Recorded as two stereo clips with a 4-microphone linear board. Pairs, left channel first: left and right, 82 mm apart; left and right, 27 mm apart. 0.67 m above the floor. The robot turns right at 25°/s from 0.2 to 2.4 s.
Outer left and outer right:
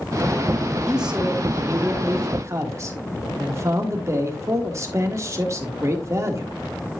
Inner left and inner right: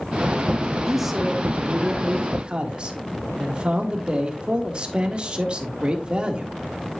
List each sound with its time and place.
0.9 s a man speaking: 175° right, 1.5 m; by 6.5 s 135° right, 1.5 m